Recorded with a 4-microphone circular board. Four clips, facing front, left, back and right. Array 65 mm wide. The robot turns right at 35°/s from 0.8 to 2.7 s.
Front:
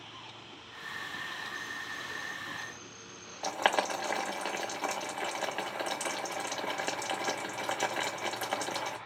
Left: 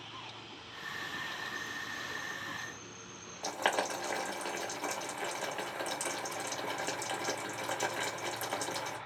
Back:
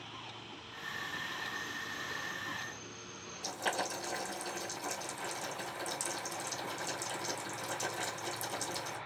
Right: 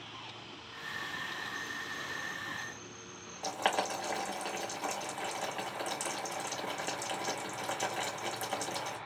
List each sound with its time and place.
3.4 s boiling: straight ahead, 0.8 m